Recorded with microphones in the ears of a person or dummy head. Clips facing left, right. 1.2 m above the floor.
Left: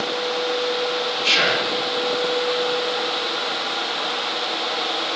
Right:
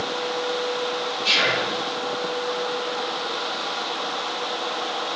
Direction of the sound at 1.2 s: 70° left (ahead or behind).